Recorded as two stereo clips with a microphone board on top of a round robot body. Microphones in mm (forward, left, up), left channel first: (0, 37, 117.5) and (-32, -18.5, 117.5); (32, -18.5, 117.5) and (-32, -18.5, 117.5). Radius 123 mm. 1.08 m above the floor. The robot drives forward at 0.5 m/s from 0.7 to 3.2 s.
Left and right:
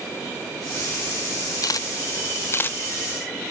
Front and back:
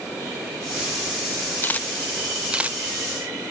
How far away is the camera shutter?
About 0.7 m.